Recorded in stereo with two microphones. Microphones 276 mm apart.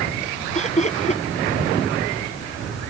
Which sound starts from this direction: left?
Laughter, at 0.6 s.